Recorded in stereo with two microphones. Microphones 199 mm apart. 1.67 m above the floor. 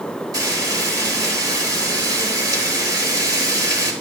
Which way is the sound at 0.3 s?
20° right (ahead or behind).